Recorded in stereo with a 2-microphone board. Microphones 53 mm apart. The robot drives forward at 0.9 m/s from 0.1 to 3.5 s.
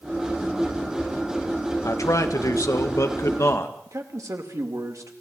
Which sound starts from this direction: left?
A man speaking, at 1.8 s.